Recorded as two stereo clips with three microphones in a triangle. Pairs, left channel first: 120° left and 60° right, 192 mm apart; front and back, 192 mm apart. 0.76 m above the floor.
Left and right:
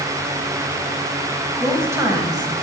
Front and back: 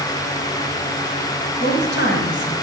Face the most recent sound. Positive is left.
turn(degrees=5)